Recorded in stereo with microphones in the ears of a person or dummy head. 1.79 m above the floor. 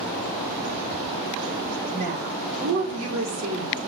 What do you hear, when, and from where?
1.9 s a woman speaking: 60° right (ahead or behind), 4.5 m; by 3.8 s 80° right, 4 m